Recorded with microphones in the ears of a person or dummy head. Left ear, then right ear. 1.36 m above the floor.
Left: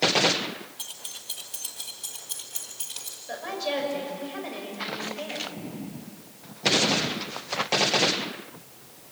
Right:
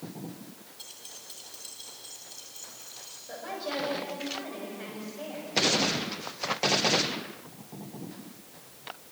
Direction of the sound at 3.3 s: 30° left (ahead or behind).